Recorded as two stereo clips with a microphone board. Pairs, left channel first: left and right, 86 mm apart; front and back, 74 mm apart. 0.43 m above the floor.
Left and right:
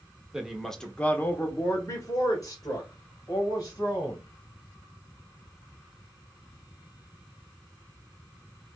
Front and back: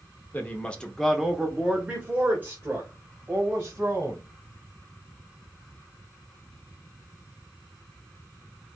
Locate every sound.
0.3 s a woman speaking: 15° right, 0.9 m; by 4.2 s 130° left, 2.5 m